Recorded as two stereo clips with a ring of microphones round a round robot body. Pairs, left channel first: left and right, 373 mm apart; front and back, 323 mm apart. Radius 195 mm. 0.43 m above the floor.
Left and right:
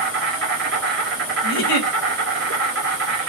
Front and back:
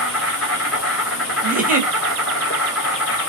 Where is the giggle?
115° left, 1.5 m.